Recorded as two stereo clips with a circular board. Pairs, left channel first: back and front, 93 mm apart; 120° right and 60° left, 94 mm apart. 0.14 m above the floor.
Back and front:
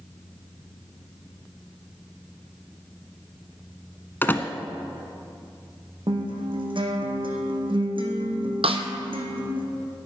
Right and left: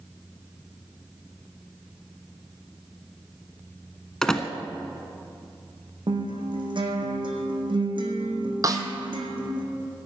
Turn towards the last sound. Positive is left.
turn(degrees=10)